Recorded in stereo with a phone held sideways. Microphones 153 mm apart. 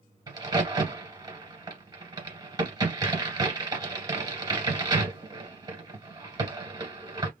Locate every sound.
0.3 s a crack: 25° right (ahead or behind), 2 m